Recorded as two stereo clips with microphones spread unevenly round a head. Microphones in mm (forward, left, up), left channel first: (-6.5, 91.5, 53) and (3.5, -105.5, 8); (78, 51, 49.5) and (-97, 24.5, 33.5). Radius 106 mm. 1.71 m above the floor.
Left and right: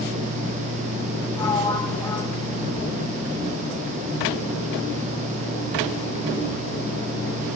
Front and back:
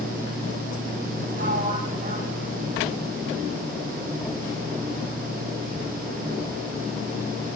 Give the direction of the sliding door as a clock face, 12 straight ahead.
7 o'clock.